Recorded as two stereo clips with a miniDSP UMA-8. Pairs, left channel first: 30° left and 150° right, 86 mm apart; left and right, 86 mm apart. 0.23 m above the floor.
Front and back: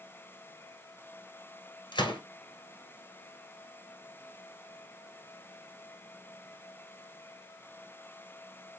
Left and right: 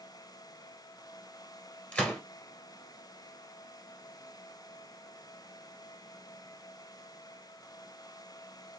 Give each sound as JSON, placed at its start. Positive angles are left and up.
{"t": 1.9, "sound": "a gunshot", "azimuth_deg": 15, "distance_m": 1.4}